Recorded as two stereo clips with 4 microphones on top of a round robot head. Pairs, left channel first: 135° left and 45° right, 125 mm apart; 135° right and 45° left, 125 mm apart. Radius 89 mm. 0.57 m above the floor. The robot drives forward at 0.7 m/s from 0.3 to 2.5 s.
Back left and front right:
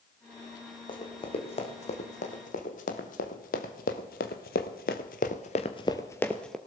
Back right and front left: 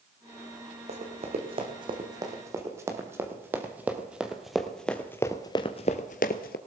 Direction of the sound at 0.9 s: 85° left.